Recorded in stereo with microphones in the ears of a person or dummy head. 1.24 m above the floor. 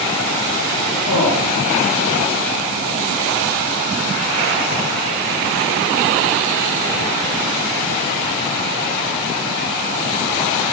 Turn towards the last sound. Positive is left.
turn(degrees=85)